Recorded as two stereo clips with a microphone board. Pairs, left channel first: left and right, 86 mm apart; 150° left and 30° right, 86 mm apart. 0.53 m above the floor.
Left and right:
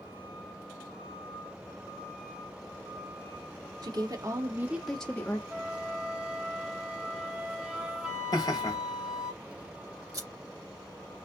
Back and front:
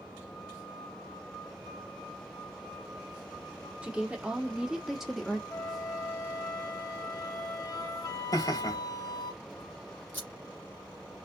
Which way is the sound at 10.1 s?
140° right.